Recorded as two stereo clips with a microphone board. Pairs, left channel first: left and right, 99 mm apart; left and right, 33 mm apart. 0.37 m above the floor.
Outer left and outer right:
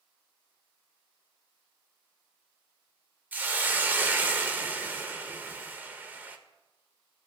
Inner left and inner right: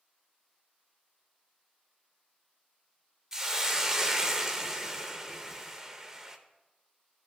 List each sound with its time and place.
3.3 s a hiss: 20° right (ahead or behind), 0.6 m